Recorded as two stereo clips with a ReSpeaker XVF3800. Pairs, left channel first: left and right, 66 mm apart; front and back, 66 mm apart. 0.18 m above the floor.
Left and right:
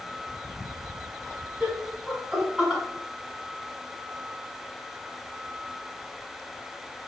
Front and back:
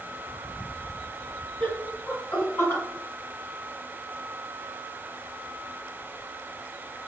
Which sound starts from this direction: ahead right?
Laughter, at 1.6 s.